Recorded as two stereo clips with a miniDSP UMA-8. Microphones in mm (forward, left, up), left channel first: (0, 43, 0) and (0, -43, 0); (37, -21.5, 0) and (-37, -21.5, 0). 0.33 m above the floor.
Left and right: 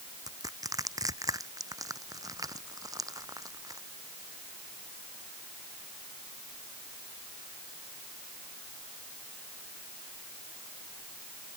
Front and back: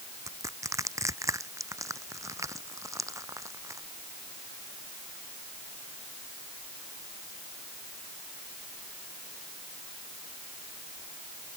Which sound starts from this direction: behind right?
Crushing, at 0.3 s.